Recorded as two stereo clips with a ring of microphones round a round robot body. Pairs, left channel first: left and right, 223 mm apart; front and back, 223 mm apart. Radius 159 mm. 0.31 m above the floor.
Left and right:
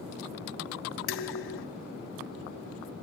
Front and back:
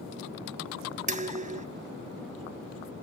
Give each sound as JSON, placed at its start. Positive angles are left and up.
{"t": 1.1, "sound": "dishes clattering", "azimuth_deg": 125, "distance_m": 1.5}